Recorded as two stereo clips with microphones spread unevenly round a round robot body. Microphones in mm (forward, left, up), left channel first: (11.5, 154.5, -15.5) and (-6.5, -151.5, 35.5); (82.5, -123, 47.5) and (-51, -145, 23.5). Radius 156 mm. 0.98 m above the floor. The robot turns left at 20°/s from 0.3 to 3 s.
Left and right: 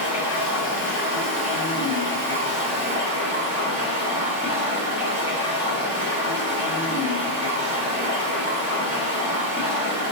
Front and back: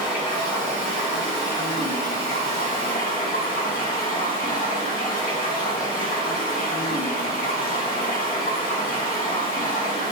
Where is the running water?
45° left, 1.1 m; by 10.1 s 10° right, 1.1 m.